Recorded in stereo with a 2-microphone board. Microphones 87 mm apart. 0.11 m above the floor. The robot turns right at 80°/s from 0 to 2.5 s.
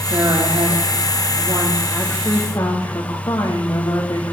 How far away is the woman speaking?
About 5.5 m.